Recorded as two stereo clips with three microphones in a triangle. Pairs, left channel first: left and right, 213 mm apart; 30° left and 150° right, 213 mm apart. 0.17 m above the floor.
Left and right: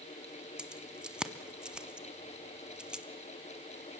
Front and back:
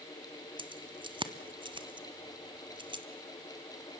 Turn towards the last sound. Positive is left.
turn(degrees=-170)